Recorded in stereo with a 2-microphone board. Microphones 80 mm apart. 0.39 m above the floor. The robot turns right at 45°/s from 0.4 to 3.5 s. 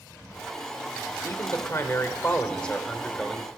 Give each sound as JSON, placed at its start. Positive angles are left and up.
{"t": 1.2, "sound": "a man speaking", "azimuth_deg": 90, "distance_m": 1.2}